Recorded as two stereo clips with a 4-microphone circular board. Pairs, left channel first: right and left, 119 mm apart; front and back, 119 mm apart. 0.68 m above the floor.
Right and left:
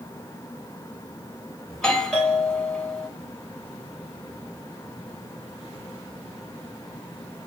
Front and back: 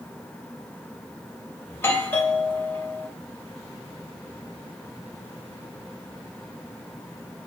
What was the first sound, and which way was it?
A doorbell, 15° right.